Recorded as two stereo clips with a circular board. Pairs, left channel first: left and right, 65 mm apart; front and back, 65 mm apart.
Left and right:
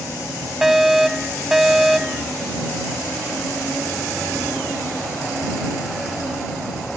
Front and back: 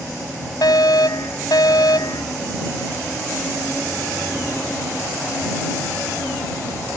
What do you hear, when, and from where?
0.6 s a fire alarm: 5° right